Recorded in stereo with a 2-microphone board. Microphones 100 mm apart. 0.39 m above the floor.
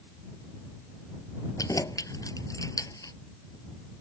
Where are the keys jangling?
35° left (ahead or behind).